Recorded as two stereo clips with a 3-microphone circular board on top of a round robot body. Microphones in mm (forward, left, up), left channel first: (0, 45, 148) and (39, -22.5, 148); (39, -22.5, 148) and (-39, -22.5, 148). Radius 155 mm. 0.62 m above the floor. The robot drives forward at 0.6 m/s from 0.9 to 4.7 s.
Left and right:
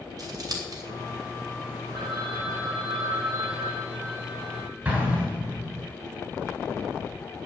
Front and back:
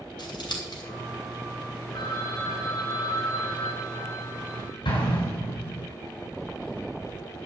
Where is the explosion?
10° left, 6.5 m.